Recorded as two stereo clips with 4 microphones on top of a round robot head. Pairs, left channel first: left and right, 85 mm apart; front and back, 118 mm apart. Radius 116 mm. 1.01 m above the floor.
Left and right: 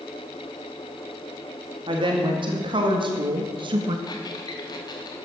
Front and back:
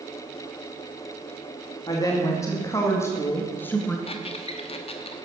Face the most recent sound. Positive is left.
turn(degrees=40)